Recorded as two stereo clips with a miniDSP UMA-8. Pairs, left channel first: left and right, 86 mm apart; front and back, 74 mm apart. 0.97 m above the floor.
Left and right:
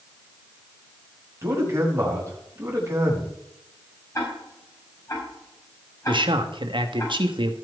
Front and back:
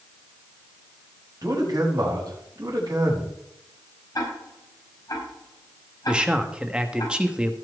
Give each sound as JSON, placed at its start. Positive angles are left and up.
{"t": 1.4, "sound": "a man speaking", "azimuth_deg": -150, "distance_m": 5.0}
{"t": 4.2, "sound": "ticking", "azimuth_deg": 35, "distance_m": 5.0}
{"t": 6.1, "sound": "a man speaking", "azimuth_deg": -100, "distance_m": 1.5}